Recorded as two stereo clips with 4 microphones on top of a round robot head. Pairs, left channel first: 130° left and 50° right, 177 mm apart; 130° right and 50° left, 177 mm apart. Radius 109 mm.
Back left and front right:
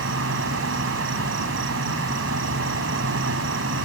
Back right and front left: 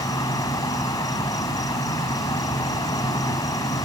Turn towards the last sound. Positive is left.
turn(degrees=-60)